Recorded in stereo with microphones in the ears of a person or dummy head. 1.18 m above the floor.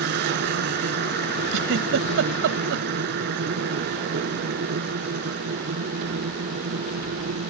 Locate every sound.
0.0 s a machine running: 65° right (ahead or behind)
1.5 s a giggle: 70° right (ahead or behind)